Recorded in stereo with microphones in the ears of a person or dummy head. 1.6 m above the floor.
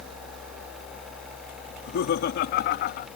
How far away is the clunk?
I don't hear a clunk.